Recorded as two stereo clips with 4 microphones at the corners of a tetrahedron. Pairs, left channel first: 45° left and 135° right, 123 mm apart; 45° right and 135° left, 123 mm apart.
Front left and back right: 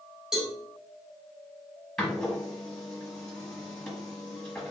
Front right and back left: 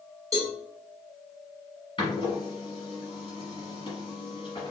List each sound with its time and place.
0.3 s a cowbell: 145° left, 1.3 m
2.0 s a door slam: 40° right, 1.5 m